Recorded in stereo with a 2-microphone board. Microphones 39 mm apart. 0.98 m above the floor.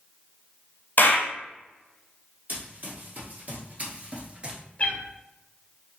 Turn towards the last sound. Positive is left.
turn(degrees=30)  # may be behind; listen again after turning